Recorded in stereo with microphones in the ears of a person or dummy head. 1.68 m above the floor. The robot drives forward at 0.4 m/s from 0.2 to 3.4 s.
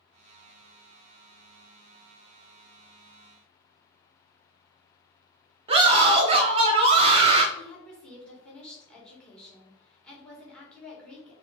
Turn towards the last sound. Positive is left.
turn(degrees=5)  # may be behind; listen again after turning